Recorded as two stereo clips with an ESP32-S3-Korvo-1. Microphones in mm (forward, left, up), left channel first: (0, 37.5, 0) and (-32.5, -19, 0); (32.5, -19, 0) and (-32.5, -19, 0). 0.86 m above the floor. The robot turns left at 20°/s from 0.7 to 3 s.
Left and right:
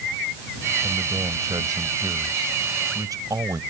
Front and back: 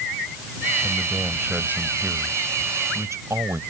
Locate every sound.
0.8 s a man speaking: 100° right; by 3.6 s 140° right